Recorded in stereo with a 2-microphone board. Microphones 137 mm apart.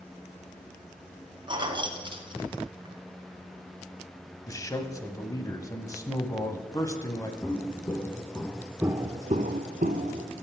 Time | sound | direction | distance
1.5 | keys jangling | 40° right (ahead or behind) | 1.2 m
4.5 | a man speaking | 25° left (ahead or behind) | 1.1 m
7.4 | footsteps | 30° left (ahead or behind) | 2.5 m